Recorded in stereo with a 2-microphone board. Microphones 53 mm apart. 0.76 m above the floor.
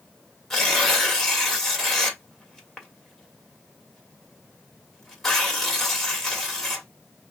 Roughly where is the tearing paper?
Centre.